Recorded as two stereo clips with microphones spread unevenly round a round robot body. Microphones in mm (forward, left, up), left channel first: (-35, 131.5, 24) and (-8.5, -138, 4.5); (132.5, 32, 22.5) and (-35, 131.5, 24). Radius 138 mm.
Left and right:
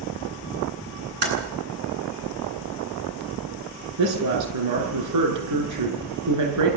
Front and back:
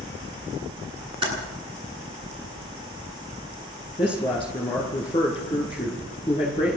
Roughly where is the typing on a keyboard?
Behind right.